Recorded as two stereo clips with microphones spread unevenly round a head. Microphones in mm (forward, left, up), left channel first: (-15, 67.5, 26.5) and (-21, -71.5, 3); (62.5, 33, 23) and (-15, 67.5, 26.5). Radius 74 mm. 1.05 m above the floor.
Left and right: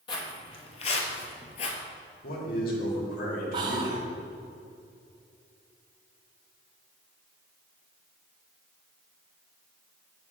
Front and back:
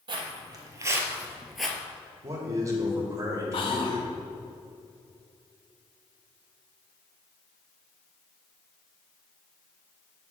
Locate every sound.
0.1 s footsteps: 135° left, 2.5 m; by 1.8 s 55° left, 1.6 m
2.2 s a man speaking: 105° left, 3 m
3.5 s whispering: 35° right, 1.9 m